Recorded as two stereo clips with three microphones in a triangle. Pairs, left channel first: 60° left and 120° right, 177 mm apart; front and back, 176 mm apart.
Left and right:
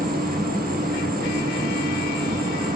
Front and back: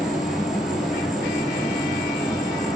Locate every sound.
0.0 s an insect: 95° right, 1.7 m